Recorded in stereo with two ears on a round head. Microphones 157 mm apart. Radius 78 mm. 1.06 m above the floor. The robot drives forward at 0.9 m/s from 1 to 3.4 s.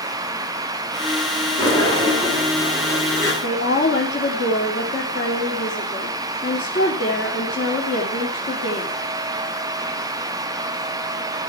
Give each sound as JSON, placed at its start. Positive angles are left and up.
{"t": 1.6, "sound": "a sliding door", "side_deg": 20, "distance_m": 6.0}
{"t": 3.4, "sound": "a woman speaking", "side_deg": 65, "distance_m": 3.0}